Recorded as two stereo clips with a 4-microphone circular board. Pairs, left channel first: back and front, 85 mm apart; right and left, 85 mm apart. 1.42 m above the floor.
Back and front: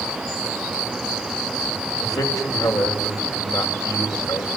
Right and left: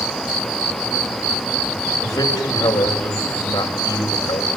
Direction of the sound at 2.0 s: 135° right.